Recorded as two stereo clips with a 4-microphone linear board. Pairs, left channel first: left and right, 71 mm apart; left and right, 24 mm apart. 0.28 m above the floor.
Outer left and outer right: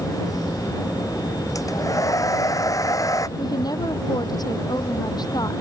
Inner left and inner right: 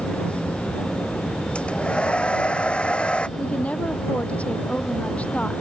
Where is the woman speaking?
70° left (ahead or behind).